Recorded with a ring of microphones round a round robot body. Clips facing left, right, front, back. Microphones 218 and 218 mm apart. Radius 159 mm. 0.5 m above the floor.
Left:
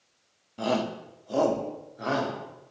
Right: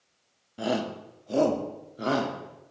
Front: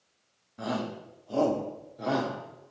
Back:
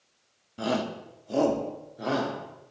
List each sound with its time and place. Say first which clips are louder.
0.6 s a shout: left 1 dB, back 4 dB; 165° right, 1.2 m; by 2.7 s 75° right, 1.5 m